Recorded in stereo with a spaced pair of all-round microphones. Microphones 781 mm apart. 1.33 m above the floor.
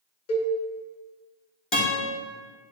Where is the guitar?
35° left (ahead or behind), 2.5 m.